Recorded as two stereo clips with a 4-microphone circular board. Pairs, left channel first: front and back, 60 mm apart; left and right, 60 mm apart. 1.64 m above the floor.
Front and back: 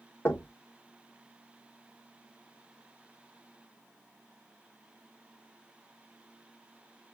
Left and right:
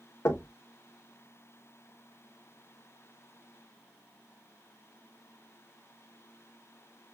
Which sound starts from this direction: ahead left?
Knocking, at 0.2 s.